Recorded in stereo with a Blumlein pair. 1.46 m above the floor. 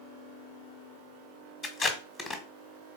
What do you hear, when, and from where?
1.6 s tape being pulled: 15° left, 1.1 m